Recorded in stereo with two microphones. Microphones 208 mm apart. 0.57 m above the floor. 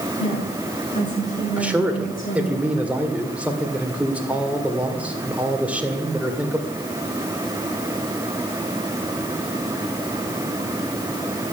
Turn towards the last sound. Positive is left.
turn(degrees=-5)  # may be behind; listen again after turning